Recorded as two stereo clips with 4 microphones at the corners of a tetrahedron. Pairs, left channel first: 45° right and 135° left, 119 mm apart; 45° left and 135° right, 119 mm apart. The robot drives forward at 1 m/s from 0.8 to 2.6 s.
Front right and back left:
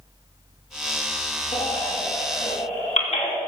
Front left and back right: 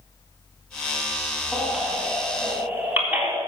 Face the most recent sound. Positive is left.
turn(degrees=-60)